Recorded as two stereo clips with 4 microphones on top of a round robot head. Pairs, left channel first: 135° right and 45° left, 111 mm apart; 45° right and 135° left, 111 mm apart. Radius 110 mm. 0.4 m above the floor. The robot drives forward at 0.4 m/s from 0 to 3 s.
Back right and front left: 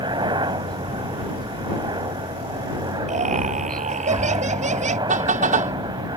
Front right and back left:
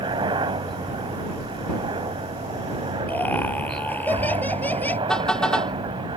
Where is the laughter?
30° left.